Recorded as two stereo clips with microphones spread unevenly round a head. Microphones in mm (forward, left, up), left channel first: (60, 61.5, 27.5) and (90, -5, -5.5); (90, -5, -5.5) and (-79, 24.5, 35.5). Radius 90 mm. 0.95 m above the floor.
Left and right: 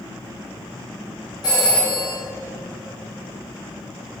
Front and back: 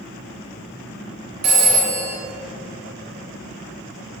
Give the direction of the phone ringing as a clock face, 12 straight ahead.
6 o'clock.